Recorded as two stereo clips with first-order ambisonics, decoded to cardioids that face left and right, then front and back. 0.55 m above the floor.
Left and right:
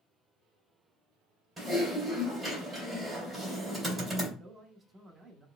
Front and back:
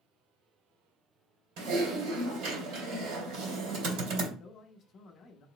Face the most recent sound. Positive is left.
turn(degrees=-20)